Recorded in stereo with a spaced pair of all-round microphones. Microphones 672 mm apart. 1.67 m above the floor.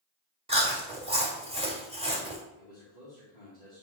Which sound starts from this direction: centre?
Chewing, at 0.5 s.